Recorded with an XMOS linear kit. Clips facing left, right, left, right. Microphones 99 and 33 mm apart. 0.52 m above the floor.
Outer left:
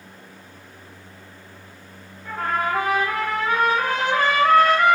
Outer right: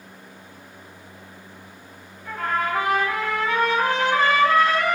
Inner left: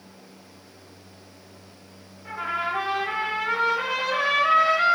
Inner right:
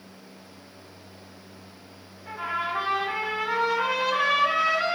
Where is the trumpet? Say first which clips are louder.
Outer left 1 dB, inner left 2 dB; 50° left (ahead or behind), 1.5 m.